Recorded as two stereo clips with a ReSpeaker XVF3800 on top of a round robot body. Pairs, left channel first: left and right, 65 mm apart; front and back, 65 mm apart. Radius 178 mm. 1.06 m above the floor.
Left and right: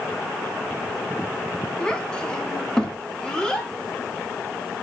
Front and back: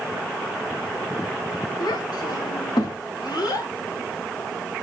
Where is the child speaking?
15° left, 1.3 m; by 3.7 s 10° left, 2 m.